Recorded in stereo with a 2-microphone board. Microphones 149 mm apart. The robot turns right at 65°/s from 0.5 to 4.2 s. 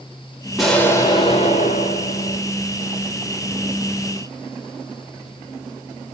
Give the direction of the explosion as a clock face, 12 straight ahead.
12 o'clock.